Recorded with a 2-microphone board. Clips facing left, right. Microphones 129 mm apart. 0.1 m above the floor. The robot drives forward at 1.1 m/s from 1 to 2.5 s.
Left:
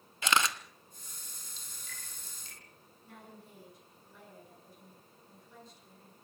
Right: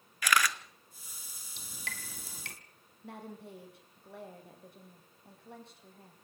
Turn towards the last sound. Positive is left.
turn(degrees=-65)  # may be behind; listen again after turning